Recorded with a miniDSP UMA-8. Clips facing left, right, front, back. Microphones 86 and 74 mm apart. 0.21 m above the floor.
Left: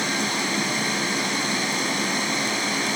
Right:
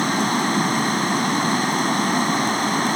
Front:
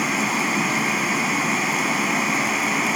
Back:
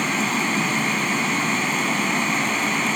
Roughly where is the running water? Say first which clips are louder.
Right 6 dB, even; right.